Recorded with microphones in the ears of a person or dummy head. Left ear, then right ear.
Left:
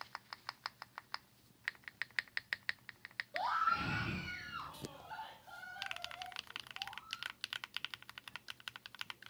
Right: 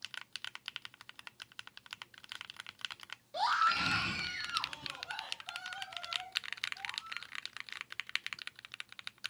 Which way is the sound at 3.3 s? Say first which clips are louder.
Right 5 dB; 35° right (ahead or behind).